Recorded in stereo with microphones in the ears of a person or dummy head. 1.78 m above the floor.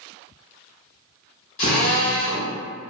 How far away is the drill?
About 1.2 m.